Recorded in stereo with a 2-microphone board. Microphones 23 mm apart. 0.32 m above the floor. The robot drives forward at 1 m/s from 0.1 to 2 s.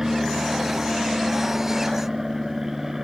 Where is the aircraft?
15° right (ahead or behind).